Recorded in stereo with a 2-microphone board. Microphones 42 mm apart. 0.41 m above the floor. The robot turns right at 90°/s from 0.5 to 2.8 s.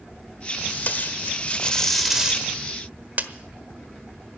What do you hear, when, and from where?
0.7 s tape being pulled: 40° left (ahead or behind), 1.1 m; by 3.3 s 45° right (ahead or behind), 1.1 m